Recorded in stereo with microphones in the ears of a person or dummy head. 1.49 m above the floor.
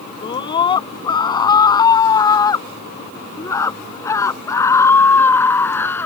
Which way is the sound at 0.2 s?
25° left (ahead or behind).